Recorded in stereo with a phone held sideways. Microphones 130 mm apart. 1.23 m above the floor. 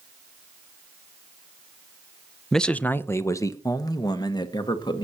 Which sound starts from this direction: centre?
A man speaking, at 2.5 s.